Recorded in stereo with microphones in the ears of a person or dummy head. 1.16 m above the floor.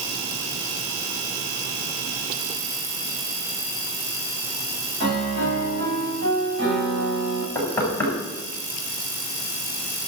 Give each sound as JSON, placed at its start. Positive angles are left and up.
{"t": 5.0, "sound": "a piano", "side_deg": -70, "distance_m": 7.0}
{"t": 7.5, "sound": "knocking", "side_deg": 10, "distance_m": 8.0}